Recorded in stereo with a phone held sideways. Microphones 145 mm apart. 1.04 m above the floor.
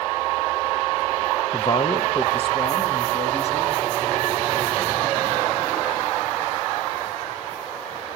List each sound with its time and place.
1.5 s a man speaking: 30° left (ahead or behind), 0.8 m; by 3.9 s 45° left (ahead or behind), 3 m